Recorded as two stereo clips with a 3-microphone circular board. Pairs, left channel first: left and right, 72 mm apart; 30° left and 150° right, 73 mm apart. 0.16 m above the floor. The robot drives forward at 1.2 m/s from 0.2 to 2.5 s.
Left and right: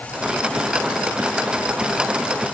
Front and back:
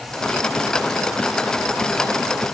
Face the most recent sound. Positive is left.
No sound to turn to.